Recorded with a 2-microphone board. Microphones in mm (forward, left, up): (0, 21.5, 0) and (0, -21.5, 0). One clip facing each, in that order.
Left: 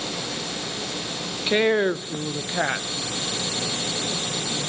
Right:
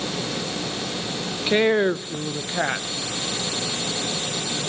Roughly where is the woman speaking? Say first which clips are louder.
Right 1 dB; centre.